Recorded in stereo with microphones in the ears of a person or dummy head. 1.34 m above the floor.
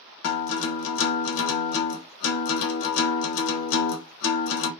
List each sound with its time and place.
0.2 s a guitar: 65° left (ahead or behind), 0.6 m